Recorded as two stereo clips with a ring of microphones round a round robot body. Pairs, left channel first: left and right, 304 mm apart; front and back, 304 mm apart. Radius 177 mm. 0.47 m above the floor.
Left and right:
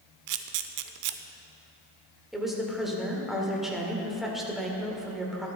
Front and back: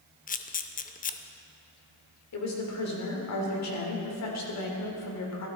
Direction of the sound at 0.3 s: 65° right.